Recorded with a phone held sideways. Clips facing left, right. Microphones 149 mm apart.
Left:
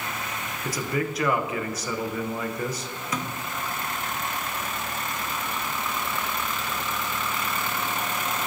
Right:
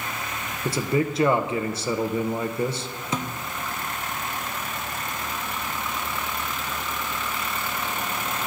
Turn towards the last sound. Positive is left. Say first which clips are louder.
# right 2 dB
turn(degrees=-25)  # may be behind; listen again after turning